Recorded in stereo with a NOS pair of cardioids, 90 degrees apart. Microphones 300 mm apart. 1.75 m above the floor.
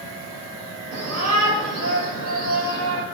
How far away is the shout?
About 6.5 m.